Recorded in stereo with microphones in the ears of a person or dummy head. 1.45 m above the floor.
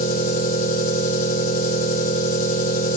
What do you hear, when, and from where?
0.0 s an engine running: 50° left (ahead or behind), 1.5 m